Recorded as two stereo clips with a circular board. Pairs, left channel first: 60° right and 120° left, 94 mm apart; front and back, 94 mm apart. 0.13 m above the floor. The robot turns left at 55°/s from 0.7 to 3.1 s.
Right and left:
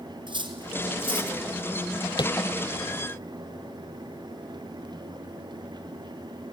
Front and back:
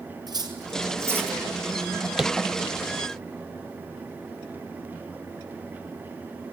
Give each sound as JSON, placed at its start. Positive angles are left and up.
{"t": 0.3, "sound": "cutlery clinking", "azimuth_deg": 140, "distance_m": 1.8}
{"t": 2.2, "sound": "tapping", "azimuth_deg": -95, "distance_m": 0.6}